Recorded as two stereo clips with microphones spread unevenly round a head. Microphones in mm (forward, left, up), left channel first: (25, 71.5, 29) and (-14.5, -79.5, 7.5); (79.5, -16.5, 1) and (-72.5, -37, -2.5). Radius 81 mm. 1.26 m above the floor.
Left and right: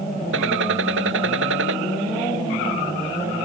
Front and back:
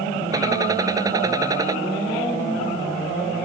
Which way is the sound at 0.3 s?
105° right.